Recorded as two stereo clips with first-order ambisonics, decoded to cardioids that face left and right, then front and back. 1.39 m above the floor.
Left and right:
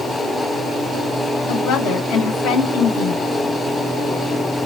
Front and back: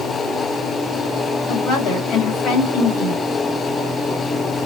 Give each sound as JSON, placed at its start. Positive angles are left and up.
{"t": 1.5, "sound": "a woman speaking", "azimuth_deg": 50, "distance_m": 2.0}